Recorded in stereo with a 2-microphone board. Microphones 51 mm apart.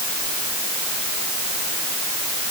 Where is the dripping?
No dripping in this recording.